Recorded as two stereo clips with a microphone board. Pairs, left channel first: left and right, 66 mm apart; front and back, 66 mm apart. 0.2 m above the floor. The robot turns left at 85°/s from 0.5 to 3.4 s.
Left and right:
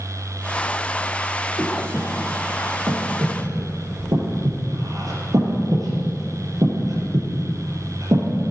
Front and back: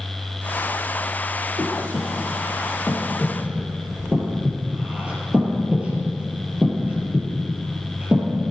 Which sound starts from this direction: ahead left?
Breathing, at 1.6 s.